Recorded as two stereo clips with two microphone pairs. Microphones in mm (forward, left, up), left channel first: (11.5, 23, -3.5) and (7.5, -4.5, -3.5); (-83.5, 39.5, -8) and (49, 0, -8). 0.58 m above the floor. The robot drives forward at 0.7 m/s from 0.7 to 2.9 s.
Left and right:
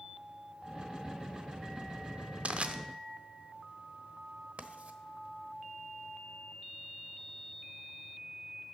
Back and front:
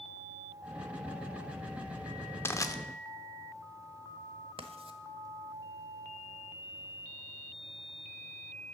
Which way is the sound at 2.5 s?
130° right.